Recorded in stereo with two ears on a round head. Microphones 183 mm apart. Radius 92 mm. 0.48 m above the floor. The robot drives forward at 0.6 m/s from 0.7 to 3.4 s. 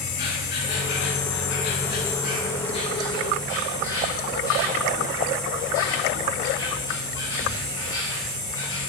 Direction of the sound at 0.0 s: 45° left (ahead or behind).